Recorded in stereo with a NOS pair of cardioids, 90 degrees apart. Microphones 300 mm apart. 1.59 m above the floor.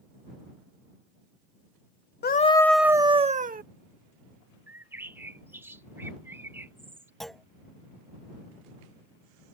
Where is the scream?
35° left; by 3.6 s 30° right.